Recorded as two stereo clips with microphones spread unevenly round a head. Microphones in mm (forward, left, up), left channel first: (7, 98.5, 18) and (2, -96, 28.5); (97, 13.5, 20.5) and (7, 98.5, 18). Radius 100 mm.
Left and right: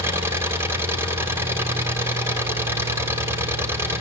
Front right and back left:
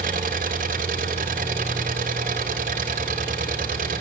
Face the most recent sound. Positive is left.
turn(degrees=-170)